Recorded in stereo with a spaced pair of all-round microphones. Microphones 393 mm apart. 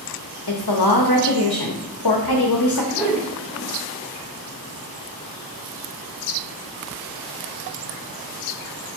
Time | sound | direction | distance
0.5 | a woman speaking | 65° left (ahead or behind) | 0.9 m
2.9 | a whoosh | 5° right (ahead or behind) | 2 m